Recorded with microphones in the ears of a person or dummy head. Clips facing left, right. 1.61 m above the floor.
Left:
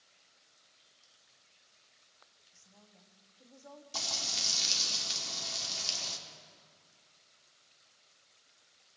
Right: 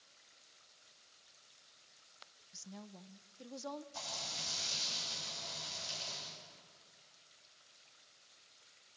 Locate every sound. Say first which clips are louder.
2.5 s a woman speaking: right 12 dB; 70° right (ahead or behind), 1.1 m
3.9 s frying: left 3 dB; 85° left, 4 m